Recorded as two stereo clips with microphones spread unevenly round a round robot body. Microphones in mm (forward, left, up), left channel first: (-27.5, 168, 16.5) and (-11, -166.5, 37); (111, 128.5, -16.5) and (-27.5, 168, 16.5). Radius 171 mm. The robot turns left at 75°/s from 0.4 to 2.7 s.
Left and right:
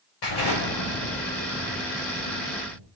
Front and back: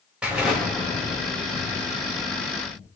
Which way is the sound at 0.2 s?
80° left.